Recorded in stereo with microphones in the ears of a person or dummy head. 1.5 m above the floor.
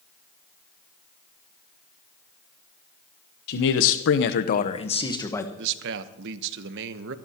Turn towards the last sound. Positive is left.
turn(degrees=-65)  # may be behind; listen again after turning